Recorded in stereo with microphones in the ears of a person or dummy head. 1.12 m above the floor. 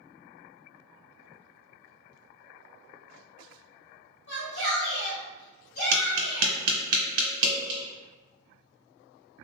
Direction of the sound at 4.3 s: 60° left (ahead or behind).